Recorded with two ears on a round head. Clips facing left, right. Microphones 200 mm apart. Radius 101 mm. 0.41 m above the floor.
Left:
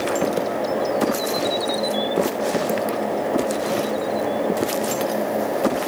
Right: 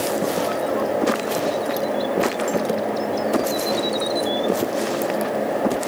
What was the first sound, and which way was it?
Only background noise.